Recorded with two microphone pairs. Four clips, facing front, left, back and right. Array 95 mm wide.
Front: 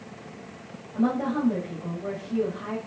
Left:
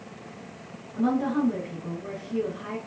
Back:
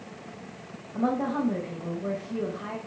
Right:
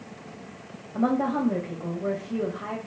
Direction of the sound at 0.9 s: 95° right.